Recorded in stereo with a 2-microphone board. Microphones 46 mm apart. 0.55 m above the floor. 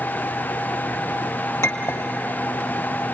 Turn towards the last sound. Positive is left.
turn(degrees=75)  # may be behind; listen again after turning